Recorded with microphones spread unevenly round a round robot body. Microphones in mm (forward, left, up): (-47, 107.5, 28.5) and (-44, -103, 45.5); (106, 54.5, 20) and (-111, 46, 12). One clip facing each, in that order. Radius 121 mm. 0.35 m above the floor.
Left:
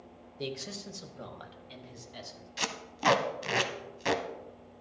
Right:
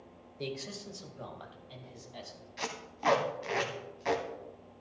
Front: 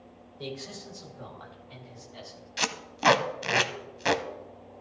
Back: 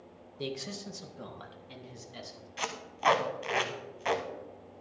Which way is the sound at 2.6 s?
40° left.